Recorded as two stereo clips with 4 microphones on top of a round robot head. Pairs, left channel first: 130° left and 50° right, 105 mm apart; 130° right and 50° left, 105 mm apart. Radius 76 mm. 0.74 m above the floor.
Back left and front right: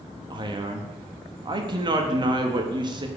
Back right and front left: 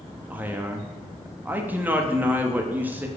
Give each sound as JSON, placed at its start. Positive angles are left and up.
{"t": 0.3, "sound": "a man speaking", "azimuth_deg": -20, "distance_m": 1.2}